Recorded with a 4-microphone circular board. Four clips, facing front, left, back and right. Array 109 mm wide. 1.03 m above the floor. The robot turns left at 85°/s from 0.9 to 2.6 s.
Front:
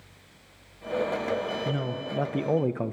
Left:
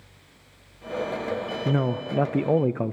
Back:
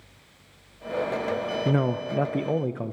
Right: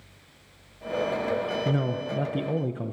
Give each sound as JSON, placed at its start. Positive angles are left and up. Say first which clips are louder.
{"t": 1.6, "sound": "a man speaking", "louder": "left 2 dB, back 6 dB", "azimuth_deg": 155, "distance_m": 0.6}